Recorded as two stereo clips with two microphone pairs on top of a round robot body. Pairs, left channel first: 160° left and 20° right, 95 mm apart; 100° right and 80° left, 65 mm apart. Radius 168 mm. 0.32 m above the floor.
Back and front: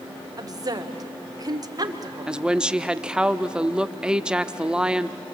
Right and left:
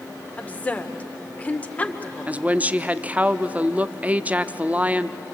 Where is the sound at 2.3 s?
50° left, 0.9 m.